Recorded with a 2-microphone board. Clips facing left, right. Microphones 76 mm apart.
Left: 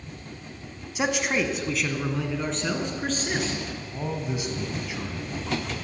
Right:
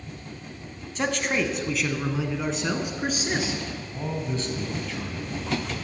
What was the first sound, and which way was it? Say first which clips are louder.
A man speaking: left 1 dB; 10° left (ahead or behind).